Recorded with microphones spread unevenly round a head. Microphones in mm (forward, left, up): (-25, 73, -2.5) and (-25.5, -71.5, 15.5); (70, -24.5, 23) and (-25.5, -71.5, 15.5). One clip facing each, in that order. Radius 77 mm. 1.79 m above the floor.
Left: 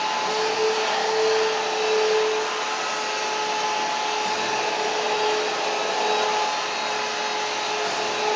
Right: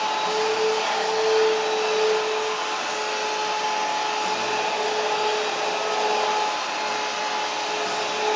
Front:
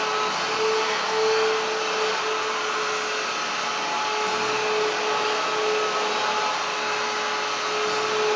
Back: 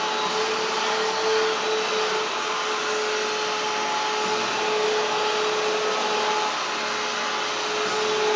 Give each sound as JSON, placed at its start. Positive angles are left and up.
{"t": 0.0, "sound": "a machine running", "azimuth_deg": 180, "distance_m": 1.3}